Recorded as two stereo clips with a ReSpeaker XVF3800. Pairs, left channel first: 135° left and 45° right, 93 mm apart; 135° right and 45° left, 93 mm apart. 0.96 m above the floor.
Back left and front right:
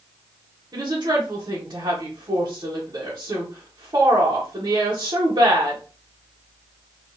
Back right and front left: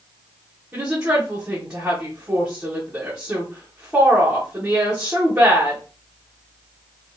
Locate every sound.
0.7 s a woman speaking: 30° right, 1.1 m